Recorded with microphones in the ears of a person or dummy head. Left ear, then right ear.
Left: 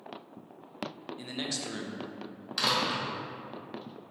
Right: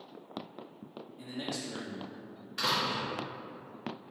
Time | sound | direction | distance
1.2 | a man speaking | 70° left (ahead or behind) | 0.9 m
2.6 | a door slam | 60° left (ahead or behind) | 1.2 m